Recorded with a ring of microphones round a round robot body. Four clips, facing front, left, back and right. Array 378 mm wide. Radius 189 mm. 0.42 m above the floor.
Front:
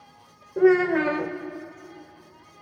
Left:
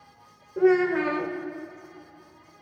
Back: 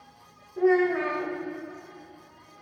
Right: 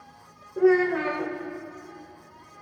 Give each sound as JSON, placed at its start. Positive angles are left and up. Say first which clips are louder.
{"t": 0.6, "sound": "a child speaking", "louder": "even, front 4 dB", "azimuth_deg": 5, "distance_m": 0.9}